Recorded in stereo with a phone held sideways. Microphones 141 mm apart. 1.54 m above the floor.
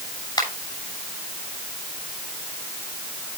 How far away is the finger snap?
About 6.5 m.